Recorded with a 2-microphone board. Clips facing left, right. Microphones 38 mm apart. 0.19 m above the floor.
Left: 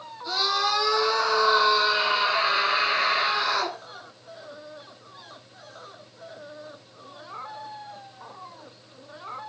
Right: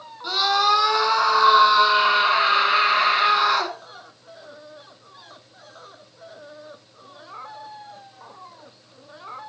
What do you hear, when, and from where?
0.2 s a scream: 75° right (ahead or behind), 8.5 m